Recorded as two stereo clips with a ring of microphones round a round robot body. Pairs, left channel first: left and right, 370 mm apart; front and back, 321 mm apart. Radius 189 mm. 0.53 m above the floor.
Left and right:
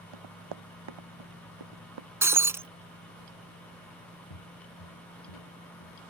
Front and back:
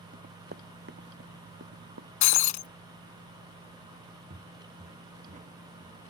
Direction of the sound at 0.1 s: 110° right.